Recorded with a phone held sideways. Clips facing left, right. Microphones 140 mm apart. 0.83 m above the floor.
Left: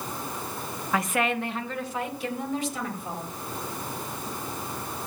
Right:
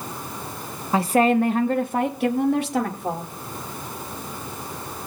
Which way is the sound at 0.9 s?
25° right (ahead or behind).